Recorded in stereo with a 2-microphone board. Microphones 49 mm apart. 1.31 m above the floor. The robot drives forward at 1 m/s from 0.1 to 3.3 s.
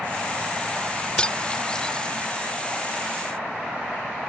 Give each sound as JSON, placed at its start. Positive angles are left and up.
{"t": 1.2, "sound": "cutlery clinking", "side_deg": 20}